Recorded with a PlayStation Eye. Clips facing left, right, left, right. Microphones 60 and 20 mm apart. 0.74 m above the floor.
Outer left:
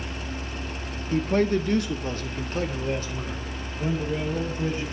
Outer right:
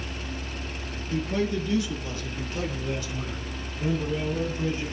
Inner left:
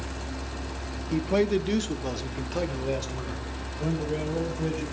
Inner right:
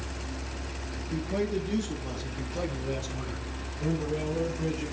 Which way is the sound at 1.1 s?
45° left (ahead or behind).